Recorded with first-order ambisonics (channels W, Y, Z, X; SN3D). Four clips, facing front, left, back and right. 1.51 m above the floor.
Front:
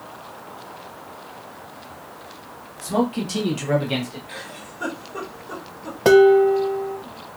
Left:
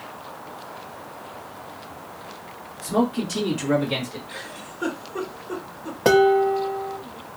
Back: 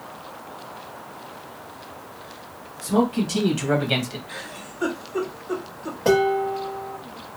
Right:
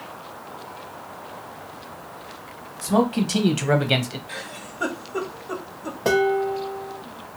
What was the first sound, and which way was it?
A man speaking, 75° right.